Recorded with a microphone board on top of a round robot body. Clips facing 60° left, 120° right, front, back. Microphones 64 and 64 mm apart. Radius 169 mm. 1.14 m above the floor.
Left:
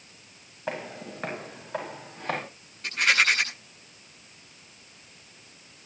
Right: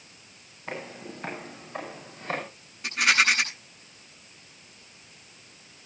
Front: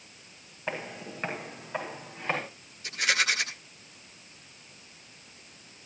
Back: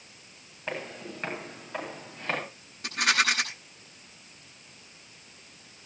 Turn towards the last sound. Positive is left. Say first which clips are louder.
# even, back 2 dB
turn(degrees=155)